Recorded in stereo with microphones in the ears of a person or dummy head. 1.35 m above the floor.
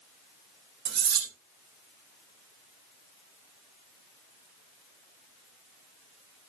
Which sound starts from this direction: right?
Cutlery clinking, at 0.8 s.